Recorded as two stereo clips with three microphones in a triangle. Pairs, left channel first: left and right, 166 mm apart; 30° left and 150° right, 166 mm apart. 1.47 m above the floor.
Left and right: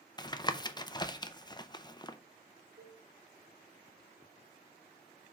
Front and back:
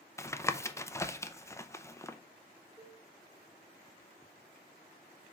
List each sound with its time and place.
0.2 s tapping: 80° left, 0.6 m
2.8 s a cowbell: 75° right, 3 m